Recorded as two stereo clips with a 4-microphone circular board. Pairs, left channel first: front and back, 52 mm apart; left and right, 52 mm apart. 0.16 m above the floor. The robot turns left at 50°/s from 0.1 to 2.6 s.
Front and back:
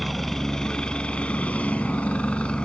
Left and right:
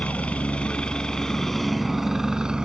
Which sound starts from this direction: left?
A helicopter, at 0.0 s.